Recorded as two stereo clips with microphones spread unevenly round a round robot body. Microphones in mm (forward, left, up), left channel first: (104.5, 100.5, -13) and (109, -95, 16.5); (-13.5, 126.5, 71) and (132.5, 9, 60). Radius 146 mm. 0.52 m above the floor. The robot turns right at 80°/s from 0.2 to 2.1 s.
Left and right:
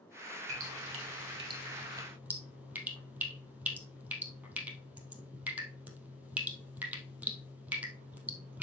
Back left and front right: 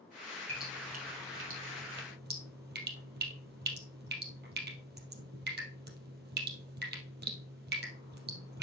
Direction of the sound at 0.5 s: 135° right.